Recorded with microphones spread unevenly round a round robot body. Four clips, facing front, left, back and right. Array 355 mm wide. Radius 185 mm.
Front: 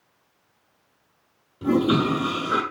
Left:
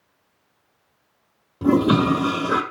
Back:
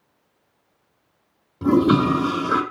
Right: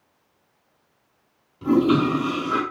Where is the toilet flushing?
120° left, 2 m.